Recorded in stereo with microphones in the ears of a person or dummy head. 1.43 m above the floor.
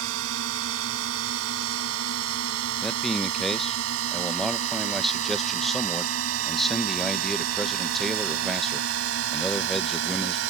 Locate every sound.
0.0 s a drone: 90° right; by 10.5 s 75° right (ahead or behind)
2.8 s a man speaking: centre (ahead or behind)